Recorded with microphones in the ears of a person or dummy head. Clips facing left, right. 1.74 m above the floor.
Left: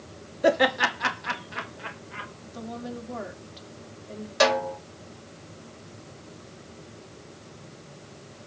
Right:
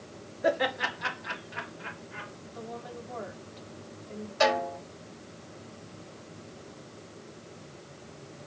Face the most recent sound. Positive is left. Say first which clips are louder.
# left 3 dB
turn(degrees=80)